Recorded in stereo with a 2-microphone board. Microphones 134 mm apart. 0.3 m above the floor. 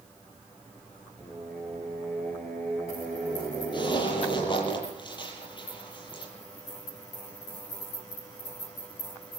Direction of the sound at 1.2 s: 10° left (ahead or behind).